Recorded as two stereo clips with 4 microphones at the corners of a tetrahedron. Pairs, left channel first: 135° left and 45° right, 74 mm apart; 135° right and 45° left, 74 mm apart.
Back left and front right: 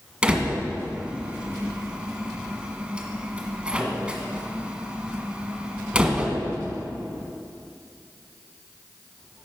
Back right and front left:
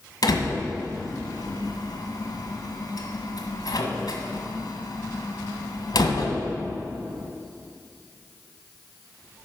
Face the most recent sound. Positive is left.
turn(degrees=-120)